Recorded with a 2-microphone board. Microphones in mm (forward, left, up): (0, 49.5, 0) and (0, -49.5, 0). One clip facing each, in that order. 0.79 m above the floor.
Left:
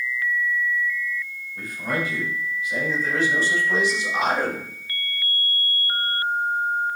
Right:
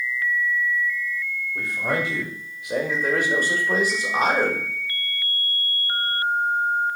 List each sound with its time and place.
1.6 s a man speaking: 75° right (ahead or behind), 3.5 m; by 4.7 s 30° right (ahead or behind), 2.5 m